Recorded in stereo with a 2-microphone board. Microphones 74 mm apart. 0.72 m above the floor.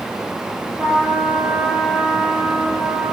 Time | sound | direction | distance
0.8 | a trumpet | 15° right (ahead or behind) | 9 m